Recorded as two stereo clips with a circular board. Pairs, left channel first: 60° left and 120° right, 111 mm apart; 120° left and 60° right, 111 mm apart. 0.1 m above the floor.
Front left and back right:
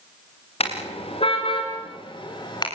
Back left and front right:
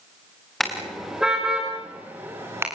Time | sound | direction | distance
0.6 | a car horn | 30° left | 6.5 m